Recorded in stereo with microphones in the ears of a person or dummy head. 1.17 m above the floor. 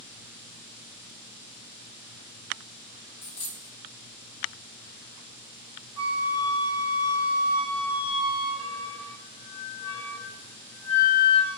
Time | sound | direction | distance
3.2 | a dropped coin | 5° left (ahead or behind) | 0.9 m
6.0 | a flute | 35° right (ahead or behind) | 0.9 m